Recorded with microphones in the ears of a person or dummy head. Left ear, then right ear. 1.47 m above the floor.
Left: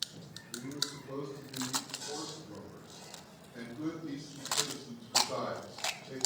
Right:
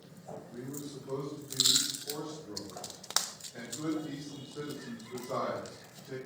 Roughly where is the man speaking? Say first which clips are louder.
Left 9 dB; right.